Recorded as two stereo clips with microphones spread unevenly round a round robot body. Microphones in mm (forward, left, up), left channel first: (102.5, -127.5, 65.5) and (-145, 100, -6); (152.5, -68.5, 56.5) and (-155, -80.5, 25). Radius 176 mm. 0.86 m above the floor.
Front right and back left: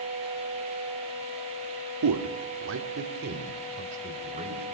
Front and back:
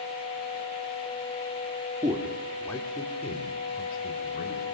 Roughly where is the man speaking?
Left.